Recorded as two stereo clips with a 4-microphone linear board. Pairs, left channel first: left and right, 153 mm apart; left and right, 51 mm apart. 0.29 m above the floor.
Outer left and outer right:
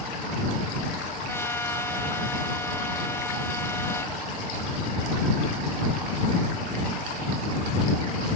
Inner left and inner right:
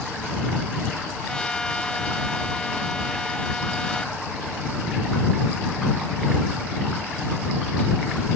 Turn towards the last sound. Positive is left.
turn(degrees=15)  # may be behind; listen again after turning